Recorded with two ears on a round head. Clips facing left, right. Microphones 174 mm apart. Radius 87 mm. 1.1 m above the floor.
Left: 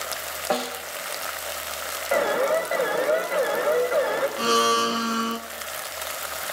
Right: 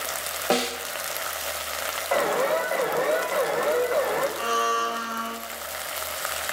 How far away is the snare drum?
About 1.0 m.